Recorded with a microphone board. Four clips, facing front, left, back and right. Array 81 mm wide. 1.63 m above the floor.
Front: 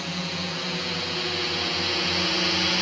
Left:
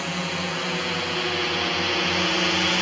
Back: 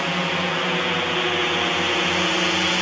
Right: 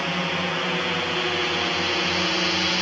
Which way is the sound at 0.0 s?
160° right.